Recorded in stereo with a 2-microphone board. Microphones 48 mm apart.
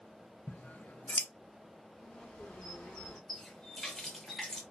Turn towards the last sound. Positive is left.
turn(degrees=5)  # may be behind; listen again after turning